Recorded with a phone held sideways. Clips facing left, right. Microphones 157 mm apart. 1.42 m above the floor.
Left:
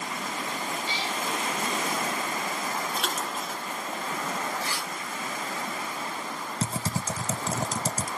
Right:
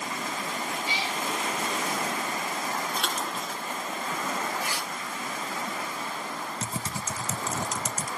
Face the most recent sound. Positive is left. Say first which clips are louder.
# left 3 dB
turn(degrees=30)  # may be behind; listen again after turning